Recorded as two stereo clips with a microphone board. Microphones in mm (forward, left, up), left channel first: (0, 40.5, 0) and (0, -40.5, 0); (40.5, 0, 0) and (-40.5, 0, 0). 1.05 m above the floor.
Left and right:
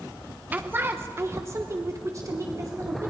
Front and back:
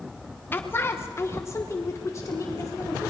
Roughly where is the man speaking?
Ahead right.